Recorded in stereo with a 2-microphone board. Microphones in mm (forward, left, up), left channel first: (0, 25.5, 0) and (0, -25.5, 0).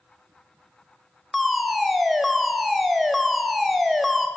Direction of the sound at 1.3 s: Centre (ahead or behind).